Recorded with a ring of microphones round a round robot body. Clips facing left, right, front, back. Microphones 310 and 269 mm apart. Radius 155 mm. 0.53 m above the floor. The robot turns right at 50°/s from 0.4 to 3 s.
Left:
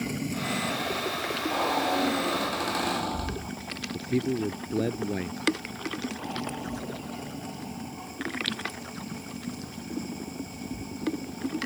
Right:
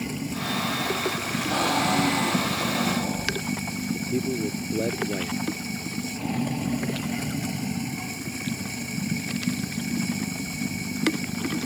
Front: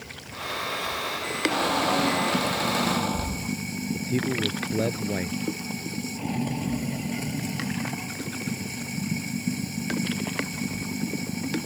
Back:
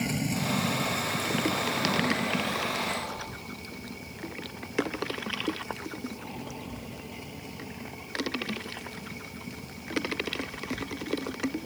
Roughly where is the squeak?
Ahead right.